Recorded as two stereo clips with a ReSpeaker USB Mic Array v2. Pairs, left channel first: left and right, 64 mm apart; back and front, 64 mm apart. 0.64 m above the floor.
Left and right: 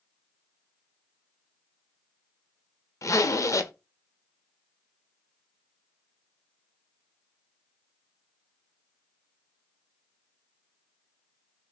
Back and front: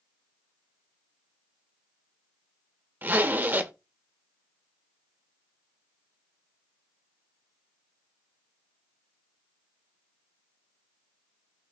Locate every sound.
3.0 s a zipper: 60° left, 0.6 m